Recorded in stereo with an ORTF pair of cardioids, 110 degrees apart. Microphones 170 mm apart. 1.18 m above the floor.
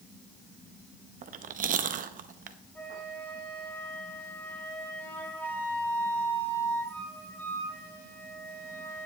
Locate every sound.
1.2 s chewing: 50° right, 0.9 m
2.8 s a flute: 10° left, 4.5 m